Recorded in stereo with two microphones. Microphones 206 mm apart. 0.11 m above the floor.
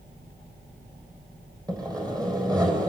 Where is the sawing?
20° right (ahead or behind), 4 m.